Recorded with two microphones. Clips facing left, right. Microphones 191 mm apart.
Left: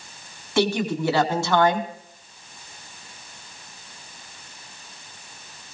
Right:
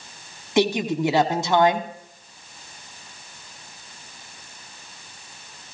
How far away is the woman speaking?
About 1.2 m.